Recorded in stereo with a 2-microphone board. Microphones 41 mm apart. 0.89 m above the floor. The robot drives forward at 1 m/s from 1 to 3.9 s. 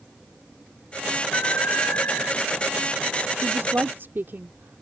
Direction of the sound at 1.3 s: 70° left (ahead or behind).